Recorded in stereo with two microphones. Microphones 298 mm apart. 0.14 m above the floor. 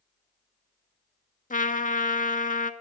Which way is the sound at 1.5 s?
25° left (ahead or behind).